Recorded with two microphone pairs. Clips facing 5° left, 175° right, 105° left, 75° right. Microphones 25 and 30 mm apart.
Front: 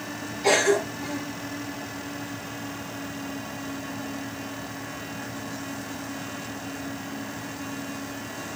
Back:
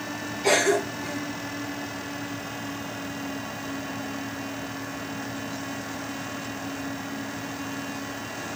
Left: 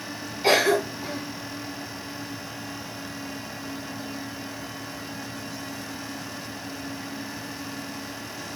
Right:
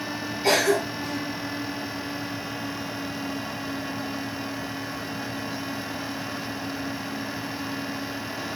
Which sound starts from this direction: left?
A cough, at 0.4 s.